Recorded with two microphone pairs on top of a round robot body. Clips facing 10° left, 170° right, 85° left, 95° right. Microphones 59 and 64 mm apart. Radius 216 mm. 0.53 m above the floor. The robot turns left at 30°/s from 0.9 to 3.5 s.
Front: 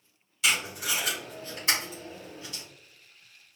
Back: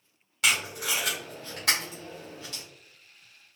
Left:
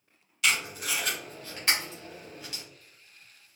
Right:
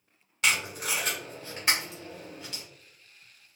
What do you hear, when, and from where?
0.4 s tape being pulled: 145° right, 0.7 m; by 2.6 s 165° left, 0.7 m